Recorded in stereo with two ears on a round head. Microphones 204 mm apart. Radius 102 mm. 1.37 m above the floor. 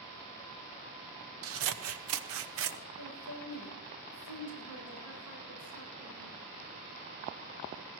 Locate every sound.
1.4 s scissors: 65° right (ahead or behind), 0.8 m
3.0 s a woman speaking: 70° right (ahead or behind), 8 m